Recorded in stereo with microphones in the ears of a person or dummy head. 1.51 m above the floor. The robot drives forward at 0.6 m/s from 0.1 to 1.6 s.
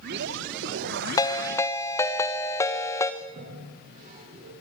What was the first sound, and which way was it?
A ringtone, 25° left (ahead or behind).